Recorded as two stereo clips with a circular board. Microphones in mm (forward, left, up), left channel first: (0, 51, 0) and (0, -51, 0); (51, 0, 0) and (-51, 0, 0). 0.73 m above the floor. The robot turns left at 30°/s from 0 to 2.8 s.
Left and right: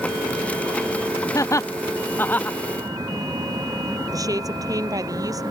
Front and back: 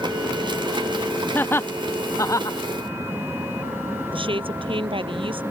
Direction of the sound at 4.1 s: 145° right.